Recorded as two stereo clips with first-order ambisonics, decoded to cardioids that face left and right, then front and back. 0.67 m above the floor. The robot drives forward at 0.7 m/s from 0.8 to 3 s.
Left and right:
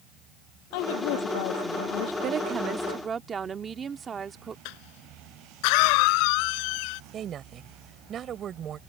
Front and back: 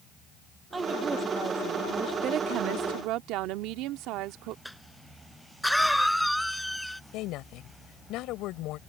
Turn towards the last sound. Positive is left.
turn(degrees=-30)